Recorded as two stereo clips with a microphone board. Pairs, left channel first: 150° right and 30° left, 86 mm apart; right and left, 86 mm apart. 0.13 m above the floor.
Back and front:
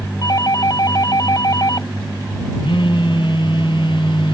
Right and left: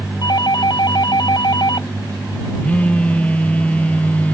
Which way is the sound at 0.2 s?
115° right.